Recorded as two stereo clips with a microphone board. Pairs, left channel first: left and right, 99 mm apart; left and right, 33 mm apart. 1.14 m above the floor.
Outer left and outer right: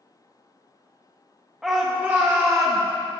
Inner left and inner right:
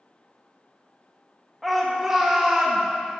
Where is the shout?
5° right (ahead or behind), 1.1 m; by 2.8 s 35° right (ahead or behind), 1.3 m.